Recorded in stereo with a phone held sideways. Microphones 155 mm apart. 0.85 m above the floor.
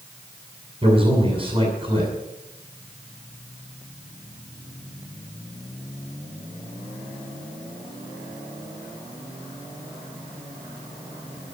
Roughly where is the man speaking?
Right.